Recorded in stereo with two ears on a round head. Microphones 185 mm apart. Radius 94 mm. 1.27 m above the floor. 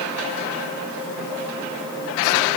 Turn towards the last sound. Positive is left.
No sound to turn to.